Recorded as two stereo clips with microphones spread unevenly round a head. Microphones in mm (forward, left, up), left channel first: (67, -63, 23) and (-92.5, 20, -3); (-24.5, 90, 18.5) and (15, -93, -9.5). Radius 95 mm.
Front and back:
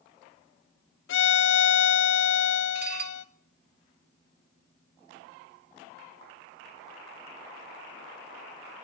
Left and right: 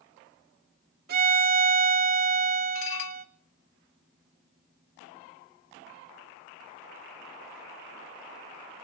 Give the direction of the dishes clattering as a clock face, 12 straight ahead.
8 o'clock.